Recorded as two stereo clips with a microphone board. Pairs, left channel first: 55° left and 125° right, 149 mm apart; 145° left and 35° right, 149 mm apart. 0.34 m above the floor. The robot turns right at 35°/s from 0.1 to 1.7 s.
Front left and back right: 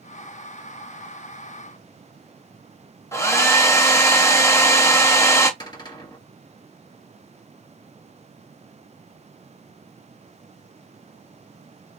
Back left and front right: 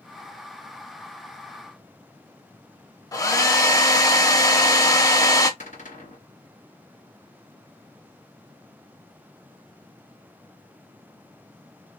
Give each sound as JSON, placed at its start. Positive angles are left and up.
{"t": 3.1, "sound": "a hair dryer", "azimuth_deg": 105, "distance_m": 0.9}
{"t": 5.6, "sound": "a cupboard door", "azimuth_deg": 115, "distance_m": 2.0}